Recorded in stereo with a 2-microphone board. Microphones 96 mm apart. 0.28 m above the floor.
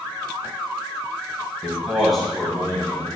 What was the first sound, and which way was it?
A man speaking, 10° right (ahead or behind).